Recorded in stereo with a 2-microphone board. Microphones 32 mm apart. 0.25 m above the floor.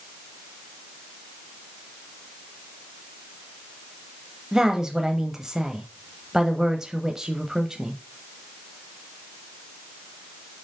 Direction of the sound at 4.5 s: 20° right (ahead or behind).